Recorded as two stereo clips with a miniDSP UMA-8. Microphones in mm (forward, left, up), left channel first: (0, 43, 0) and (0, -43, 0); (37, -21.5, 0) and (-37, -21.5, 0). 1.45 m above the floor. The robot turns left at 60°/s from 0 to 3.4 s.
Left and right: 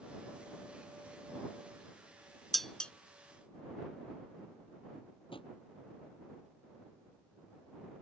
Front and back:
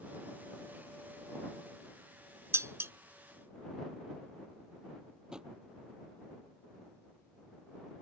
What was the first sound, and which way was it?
Dishes clattering, straight behind.